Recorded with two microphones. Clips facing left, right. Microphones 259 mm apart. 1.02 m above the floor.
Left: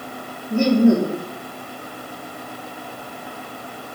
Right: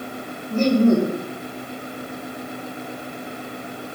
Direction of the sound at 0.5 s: 10° left (ahead or behind).